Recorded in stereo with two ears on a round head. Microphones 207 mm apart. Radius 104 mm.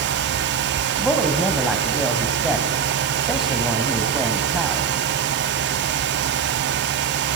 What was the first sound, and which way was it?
A woman speaking, centre (ahead or behind).